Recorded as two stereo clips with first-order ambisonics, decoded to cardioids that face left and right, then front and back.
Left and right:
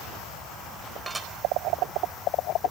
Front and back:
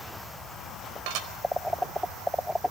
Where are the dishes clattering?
175° right, 4 m.